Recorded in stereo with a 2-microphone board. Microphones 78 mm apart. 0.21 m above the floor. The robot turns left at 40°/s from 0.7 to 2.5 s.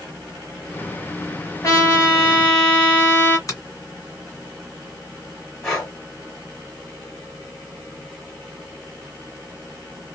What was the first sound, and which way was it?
A trumpet, 80° left.